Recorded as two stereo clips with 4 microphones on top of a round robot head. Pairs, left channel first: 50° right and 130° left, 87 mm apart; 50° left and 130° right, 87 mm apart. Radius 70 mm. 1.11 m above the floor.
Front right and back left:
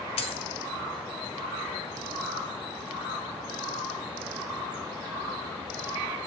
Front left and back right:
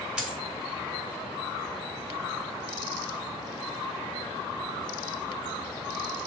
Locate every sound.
0.2 s a dropped coin: 50° right, 1.5 m